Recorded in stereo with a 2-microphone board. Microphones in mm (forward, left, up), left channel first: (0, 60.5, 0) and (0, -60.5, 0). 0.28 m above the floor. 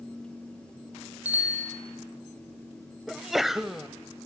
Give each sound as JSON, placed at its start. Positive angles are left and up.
{"t": 1.2, "sound": "a bicycle bell", "side_deg": -15, "distance_m": 7.5}
{"t": 3.1, "sound": "a sneeze", "side_deg": 0, "distance_m": 1.1}